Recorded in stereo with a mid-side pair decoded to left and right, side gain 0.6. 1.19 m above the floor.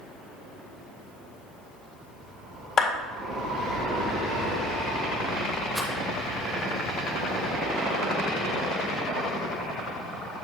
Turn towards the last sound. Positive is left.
turn(degrees=0)